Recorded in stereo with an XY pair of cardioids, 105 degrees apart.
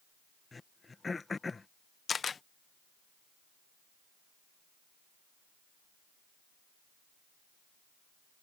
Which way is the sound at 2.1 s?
35° left.